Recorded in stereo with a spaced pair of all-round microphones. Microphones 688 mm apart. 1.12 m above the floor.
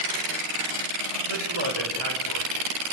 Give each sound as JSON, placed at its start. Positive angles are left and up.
{"t": 1.3, "sound": "a man speaking", "side_deg": -40, "distance_m": 6.0}